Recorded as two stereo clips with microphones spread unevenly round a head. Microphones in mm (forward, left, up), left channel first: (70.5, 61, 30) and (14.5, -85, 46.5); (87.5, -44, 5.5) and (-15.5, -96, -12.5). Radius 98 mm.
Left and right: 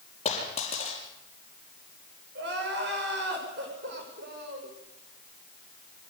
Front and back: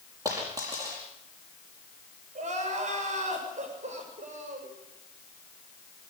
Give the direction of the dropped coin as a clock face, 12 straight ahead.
8 o'clock.